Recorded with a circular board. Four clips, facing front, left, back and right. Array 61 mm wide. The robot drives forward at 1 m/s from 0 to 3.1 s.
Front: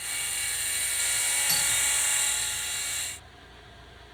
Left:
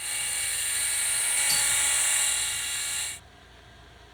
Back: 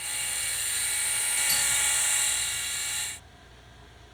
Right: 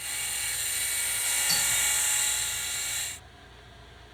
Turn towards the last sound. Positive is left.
turn(degrees=-55)